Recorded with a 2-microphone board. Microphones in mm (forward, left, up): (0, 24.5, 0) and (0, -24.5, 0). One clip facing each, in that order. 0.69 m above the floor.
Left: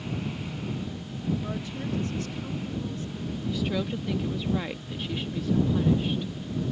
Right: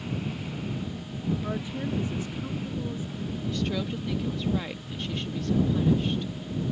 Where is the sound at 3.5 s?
10° left (ahead or behind).